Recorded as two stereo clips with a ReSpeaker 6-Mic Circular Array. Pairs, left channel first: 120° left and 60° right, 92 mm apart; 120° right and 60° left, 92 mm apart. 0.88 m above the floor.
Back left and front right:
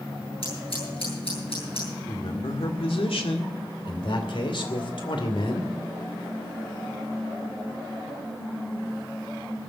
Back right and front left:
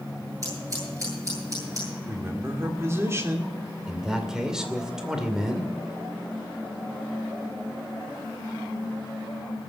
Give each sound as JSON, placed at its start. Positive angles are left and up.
{"t": 0.4, "sound": "scissors", "azimuth_deg": 115, "distance_m": 9.5}
{"t": 2.1, "sound": "a man speaking", "azimuth_deg": 120, "distance_m": 2.5}
{"t": 3.9, "sound": "a man speaking", "azimuth_deg": 145, "distance_m": 2.5}